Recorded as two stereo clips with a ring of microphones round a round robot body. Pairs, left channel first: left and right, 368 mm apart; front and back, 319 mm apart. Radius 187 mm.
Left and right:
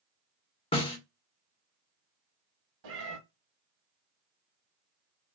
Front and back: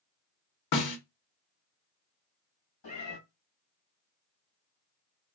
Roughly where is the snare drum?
Ahead.